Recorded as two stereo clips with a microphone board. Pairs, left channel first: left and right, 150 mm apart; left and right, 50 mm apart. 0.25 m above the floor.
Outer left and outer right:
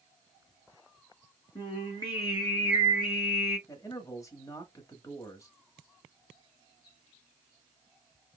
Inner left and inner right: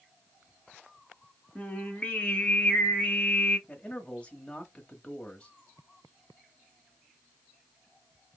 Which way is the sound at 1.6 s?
30° left (ahead or behind).